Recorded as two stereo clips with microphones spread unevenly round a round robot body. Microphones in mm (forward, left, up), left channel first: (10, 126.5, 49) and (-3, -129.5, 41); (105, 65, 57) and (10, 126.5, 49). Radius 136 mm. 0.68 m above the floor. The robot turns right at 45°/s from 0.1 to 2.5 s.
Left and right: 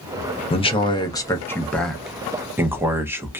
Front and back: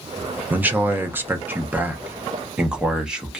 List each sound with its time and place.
0.5 s a man speaking: 115° left, 0.6 m; by 3.4 s 155° right, 0.6 m